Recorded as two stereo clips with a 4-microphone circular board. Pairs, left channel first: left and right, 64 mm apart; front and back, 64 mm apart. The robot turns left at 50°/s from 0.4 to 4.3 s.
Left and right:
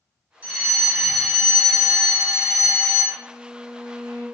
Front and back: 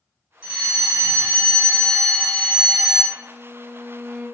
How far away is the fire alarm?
About 2.0 m.